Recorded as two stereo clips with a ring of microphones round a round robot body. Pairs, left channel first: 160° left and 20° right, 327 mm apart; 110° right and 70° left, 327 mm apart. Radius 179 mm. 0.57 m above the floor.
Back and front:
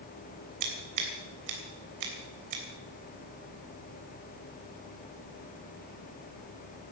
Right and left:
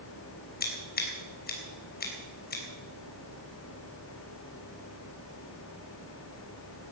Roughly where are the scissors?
Ahead right.